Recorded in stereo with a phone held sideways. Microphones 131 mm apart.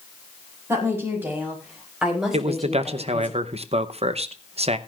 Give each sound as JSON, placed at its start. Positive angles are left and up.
{"t": 0.7, "sound": "a woman speaking", "side_deg": -20, "distance_m": 6.5}
{"t": 2.3, "sound": "a man speaking", "side_deg": -50, "distance_m": 0.7}